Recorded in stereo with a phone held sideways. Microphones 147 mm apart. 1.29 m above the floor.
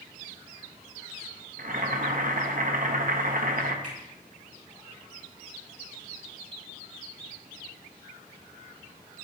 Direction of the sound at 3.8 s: 60° right (ahead or behind).